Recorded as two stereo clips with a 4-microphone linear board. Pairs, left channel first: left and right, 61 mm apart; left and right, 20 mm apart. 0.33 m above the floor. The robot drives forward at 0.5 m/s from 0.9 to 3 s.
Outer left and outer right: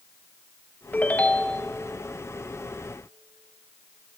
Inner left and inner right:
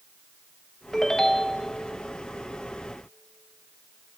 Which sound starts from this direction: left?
A ringtone, at 0.9 s.